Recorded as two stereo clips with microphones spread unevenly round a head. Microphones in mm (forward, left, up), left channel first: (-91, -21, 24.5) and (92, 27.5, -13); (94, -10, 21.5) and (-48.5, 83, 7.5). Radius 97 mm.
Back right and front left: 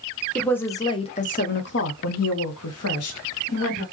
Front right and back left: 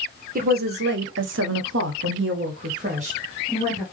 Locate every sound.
0.3 s a woman speaking: 110° left, 1.1 m; by 3.8 s 145° right, 1.8 m